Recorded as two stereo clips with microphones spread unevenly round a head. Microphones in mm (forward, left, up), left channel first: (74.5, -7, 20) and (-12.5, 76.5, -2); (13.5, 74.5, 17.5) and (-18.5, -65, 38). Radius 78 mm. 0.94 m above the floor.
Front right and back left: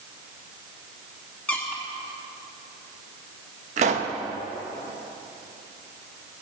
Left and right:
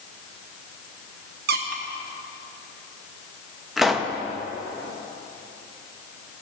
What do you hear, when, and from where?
1.5 s a squeak: 125° right, 1.1 m
3.8 s a pop: 165° left, 0.7 m